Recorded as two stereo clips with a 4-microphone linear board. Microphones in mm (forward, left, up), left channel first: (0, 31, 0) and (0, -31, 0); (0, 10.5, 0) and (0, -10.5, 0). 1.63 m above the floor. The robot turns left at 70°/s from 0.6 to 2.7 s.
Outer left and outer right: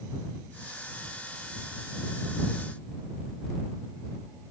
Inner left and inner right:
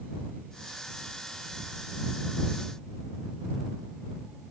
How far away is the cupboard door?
No cupboard door in this recording.